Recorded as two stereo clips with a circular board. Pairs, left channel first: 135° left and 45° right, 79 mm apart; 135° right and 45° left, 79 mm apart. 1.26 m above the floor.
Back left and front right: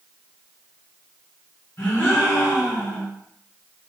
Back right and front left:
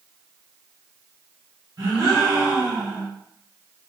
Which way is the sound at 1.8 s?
80° left.